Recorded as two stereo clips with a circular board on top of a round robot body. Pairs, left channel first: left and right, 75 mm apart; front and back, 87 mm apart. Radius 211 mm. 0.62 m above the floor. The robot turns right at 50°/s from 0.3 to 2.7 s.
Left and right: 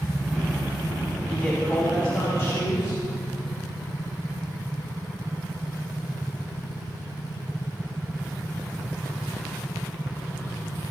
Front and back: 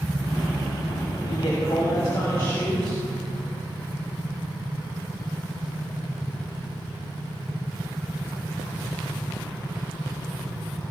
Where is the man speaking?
10° left, 6 m; by 3.0 s 80° left, 6 m.